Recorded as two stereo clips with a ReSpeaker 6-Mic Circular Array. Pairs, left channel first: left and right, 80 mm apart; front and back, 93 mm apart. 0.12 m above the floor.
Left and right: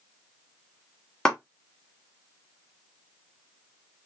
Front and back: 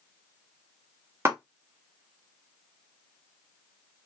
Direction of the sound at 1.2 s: 160° left.